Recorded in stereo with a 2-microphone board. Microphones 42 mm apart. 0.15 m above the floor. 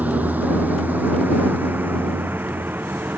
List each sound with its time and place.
0.0 s a vehicle: 40° right (ahead or behind); by 3.2 s 50° right (ahead or behind)